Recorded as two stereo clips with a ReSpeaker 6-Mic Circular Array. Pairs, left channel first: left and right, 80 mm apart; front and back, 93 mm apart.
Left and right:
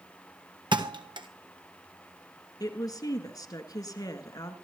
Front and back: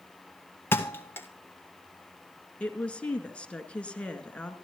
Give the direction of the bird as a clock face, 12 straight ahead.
No bird in this recording.